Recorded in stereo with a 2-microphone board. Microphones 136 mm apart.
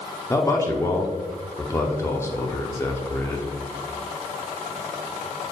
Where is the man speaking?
20° left (ahead or behind), 0.6 m.